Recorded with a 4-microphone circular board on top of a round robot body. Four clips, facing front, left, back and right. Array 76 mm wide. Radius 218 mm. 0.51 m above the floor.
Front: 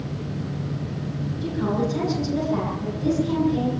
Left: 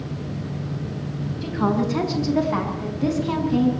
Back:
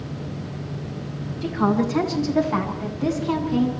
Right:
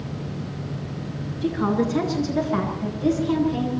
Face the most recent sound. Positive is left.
turn(degrees=140)